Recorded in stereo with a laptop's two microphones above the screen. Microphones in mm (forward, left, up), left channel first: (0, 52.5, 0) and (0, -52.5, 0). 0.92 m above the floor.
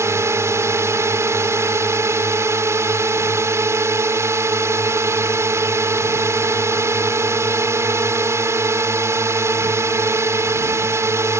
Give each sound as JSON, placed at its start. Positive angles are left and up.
{"t": 0.0, "sound": "a drone", "side_deg": -25}